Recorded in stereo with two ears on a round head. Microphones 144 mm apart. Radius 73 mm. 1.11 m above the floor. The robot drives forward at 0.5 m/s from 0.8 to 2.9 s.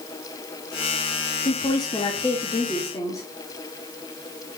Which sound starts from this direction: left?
A woman speaking, at 1.4 s.